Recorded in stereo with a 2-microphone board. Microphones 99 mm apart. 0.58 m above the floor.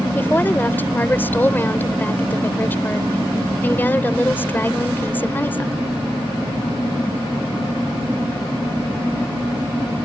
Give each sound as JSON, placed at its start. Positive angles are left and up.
{"t": 0.1, "sound": "a woman speaking", "side_deg": 20}